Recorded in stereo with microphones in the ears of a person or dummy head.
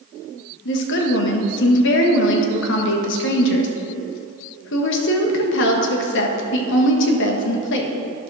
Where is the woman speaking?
65° left (ahead or behind), 1.4 m.